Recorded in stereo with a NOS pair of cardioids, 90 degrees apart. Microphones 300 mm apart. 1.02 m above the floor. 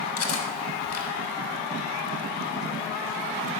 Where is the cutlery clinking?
50° left, 2 m.